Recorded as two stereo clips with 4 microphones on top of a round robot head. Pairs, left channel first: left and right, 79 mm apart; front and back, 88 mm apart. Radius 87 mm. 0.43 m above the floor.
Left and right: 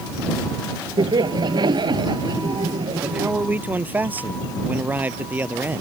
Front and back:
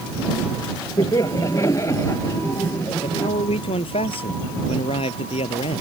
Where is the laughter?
60° right; by 3.3 s 65° right.